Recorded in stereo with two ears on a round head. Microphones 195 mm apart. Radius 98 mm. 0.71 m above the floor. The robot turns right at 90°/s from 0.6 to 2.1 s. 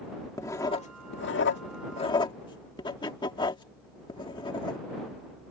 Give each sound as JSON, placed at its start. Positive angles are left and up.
{"t": 0.4, "sound": "writing", "side_deg": 15}